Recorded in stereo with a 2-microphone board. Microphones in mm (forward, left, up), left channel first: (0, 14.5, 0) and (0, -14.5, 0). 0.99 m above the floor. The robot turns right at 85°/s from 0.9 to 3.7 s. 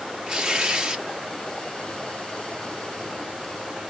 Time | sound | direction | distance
0.3 | tearing paper | 30° right (ahead or behind) | 0.8 m